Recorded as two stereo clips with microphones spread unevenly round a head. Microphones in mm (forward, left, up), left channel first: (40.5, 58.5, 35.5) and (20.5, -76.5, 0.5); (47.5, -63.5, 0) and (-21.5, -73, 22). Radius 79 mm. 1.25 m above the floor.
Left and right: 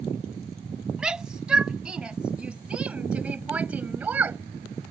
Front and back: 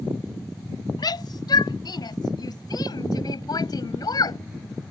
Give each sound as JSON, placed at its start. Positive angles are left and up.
{"t": 1.0, "sound": "a shout", "azimuth_deg": -10}